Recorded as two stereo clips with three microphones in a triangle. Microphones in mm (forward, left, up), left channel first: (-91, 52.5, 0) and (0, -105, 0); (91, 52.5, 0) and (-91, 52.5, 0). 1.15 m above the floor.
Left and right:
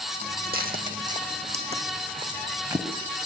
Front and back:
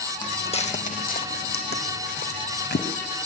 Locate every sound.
0.2 s footsteps: 60° right, 2 m; by 2.9 s 10° left, 3.5 m